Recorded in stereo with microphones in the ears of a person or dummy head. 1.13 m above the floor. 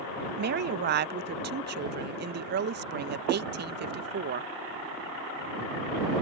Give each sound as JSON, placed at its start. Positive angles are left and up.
{"t": 0.4, "sound": "a woman speaking", "side_deg": -50}